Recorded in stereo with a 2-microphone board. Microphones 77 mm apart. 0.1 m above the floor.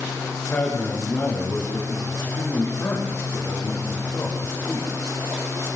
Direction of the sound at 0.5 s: 30° left (ahead or behind).